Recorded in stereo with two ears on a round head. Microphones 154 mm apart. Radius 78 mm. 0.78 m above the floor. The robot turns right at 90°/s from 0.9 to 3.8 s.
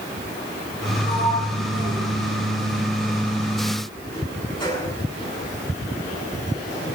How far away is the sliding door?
About 7.5 m.